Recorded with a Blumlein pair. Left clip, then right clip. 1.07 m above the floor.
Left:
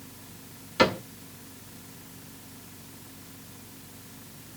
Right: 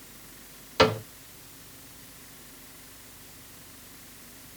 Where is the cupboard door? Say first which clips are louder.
Right 1 dB; 5° right, 2.5 m.